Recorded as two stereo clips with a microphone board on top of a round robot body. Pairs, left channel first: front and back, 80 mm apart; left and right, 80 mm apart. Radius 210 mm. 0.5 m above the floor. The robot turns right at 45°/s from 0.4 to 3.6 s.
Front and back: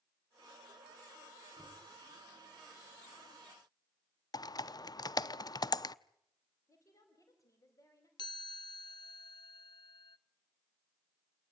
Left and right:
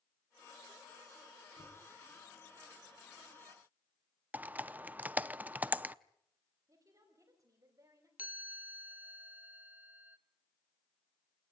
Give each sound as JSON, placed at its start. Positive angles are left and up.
{"t": 1.6, "sound": "knocking", "azimuth_deg": -90, "distance_m": 5.0}
{"t": 4.3, "sound": "typing on a keyboard", "azimuth_deg": -20, "distance_m": 0.8}
{"t": 6.7, "sound": "a woman speaking", "azimuth_deg": -45, "distance_m": 4.5}
{"t": 8.2, "sound": "a chime", "azimuth_deg": -20, "distance_m": 0.7}